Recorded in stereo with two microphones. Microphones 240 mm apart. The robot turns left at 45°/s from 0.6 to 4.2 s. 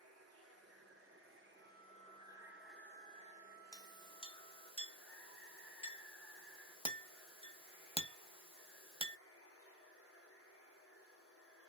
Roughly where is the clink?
Centre.